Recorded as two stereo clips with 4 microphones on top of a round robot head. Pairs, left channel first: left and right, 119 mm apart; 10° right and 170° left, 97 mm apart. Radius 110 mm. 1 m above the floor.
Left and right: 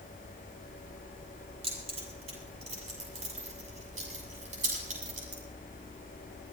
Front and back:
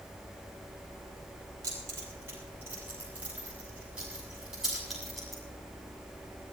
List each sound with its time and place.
1.6 s keys jangling: 125° right, 6.5 m; by 5.4 s 100° right, 7 m